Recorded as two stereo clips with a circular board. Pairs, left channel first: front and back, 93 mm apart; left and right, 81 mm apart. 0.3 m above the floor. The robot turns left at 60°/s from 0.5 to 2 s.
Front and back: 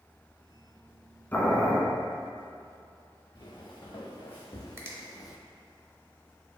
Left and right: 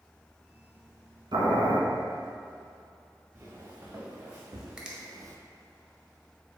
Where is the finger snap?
155° right, 0.7 m.